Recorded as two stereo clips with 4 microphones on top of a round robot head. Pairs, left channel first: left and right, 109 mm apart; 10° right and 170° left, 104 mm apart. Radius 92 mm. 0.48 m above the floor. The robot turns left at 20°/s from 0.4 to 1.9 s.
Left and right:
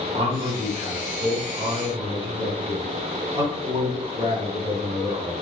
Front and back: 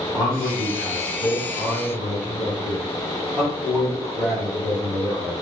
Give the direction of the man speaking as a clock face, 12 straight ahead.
3 o'clock.